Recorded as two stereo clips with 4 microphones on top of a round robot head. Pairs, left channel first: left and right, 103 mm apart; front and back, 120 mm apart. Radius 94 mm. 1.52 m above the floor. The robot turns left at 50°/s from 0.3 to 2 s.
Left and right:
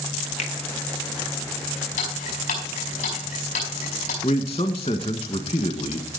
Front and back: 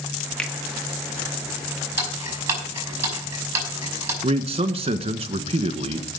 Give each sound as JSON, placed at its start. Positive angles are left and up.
{"t": 0.4, "sound": "a finger snap", "azimuth_deg": 85, "distance_m": 1.4}
{"t": 2.0, "sound": "ticking", "azimuth_deg": 115, "distance_m": 5.0}
{"t": 4.2, "sound": "a man speaking", "azimuth_deg": 145, "distance_m": 1.4}